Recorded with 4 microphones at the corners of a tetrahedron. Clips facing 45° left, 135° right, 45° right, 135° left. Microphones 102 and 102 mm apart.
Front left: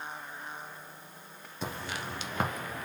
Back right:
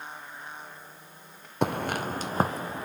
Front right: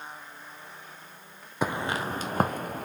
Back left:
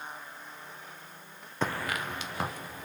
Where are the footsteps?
120° right, 0.6 m; by 2.9 s 75° right, 1.2 m.